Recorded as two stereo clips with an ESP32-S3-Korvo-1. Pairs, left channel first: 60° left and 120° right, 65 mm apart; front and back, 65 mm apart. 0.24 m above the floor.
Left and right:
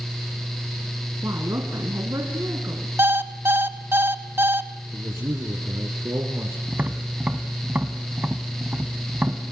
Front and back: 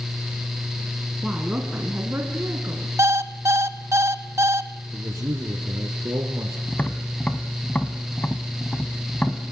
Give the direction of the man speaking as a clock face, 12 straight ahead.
5 o'clock.